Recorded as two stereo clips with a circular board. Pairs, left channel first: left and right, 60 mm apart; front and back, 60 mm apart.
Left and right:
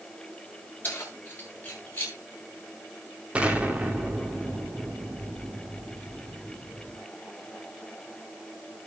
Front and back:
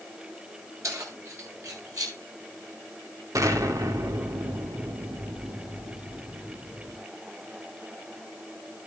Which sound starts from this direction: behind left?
Keys jangling, at 0.8 s.